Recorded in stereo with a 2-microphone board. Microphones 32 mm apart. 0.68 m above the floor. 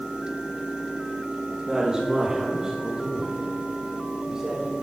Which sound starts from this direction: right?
A woman speaking, at 1.7 s.